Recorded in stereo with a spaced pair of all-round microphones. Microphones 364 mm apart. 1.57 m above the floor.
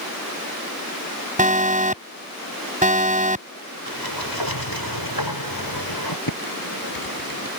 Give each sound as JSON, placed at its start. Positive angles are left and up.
{"t": 1.4, "sound": "an alarm", "side_deg": -20}
{"t": 3.9, "sound": "a sliding door", "side_deg": 90}
{"t": 6.3, "sound": "typing on a keyboard", "side_deg": 65}